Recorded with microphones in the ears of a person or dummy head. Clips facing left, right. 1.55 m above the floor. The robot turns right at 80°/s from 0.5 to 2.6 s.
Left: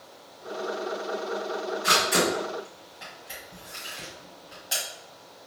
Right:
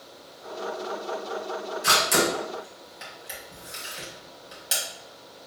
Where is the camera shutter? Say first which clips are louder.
Right 1 dB; 50° right (ahead or behind), 1.9 m; by 4.8 s 40° right (ahead or behind), 1.9 m.